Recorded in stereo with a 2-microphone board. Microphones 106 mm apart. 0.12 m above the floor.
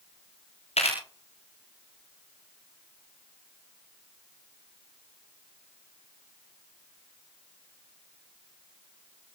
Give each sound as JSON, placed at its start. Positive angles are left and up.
{"t": 0.8, "sound": "a camera shutter", "side_deg": 75, "distance_m": 8.5}